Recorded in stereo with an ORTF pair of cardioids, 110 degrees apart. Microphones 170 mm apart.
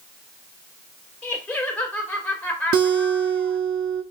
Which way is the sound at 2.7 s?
65° right.